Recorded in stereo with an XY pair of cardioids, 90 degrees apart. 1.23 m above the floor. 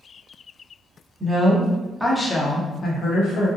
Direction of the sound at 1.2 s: 15° right.